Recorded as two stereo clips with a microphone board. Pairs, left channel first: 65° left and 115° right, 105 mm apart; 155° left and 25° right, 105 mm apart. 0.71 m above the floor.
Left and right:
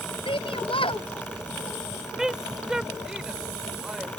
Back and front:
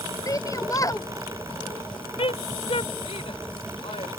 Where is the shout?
100° left.